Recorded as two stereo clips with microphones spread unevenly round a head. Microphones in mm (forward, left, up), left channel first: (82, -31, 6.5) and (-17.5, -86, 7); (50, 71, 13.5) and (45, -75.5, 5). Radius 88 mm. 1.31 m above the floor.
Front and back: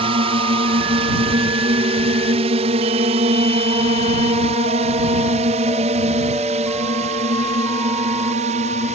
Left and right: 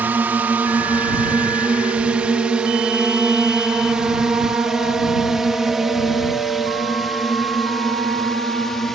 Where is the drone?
170° right; by 9.0 s 175° left.